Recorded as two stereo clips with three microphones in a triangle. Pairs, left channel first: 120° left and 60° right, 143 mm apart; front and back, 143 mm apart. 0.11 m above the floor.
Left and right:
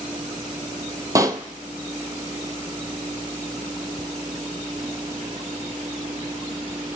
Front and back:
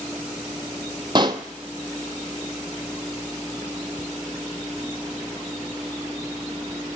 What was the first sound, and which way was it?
A pop, 125° right.